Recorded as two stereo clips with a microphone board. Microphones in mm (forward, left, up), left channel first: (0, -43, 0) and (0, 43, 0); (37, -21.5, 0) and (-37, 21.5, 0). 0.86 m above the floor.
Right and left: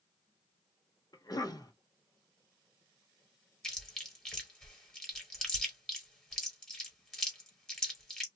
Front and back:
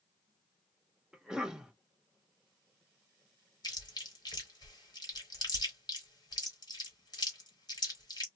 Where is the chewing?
10° right, 1.5 m.